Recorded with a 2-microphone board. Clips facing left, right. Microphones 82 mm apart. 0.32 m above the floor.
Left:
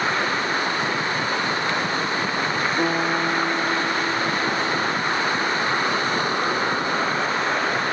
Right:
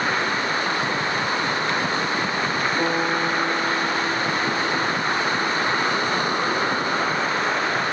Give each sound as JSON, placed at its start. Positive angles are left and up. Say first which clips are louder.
{"t": 2.8, "sound": "a guitar", "louder": "left 1 dB", "side_deg": 10, "distance_m": 4.5}